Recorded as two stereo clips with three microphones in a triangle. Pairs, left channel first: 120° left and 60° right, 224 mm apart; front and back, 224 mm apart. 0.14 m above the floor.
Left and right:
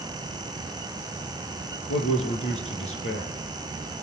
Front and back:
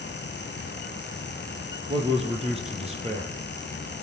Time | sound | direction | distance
1.9 | a man speaking | 120° left | 3.5 m